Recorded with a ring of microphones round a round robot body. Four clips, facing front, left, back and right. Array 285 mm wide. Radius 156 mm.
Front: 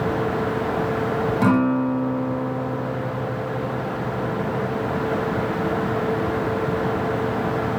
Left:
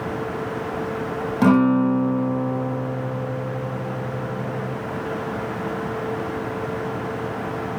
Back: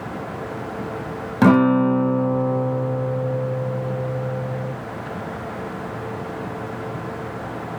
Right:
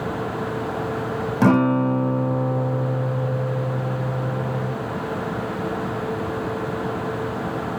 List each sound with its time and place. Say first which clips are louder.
1.4 s a guitar: left 1 dB, back 6 dB; 165° right, 0.7 m